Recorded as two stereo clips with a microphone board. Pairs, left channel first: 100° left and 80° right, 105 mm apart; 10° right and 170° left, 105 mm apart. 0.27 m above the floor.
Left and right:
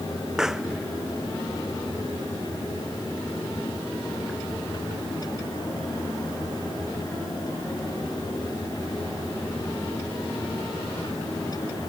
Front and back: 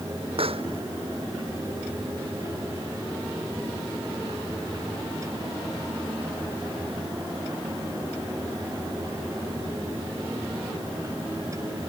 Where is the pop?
165° right.